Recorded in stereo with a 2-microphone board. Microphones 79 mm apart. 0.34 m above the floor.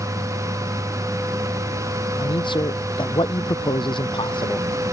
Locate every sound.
2.2 s a man speaking: 85° left